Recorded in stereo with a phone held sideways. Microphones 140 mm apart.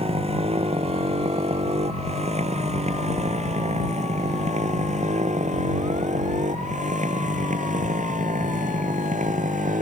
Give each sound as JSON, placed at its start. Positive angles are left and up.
{"t": 0.0, "sound": "a motorcycle", "side_deg": -45}